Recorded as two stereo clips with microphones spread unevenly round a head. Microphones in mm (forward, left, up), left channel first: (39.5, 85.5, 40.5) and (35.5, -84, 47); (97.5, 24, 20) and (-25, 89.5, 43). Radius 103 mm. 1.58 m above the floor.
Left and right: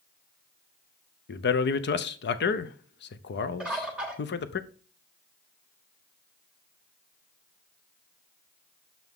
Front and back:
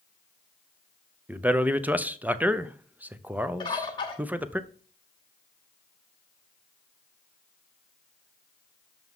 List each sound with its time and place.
1.3 s a man speaking: 70° left, 0.7 m
3.6 s a bird: 25° right, 1.1 m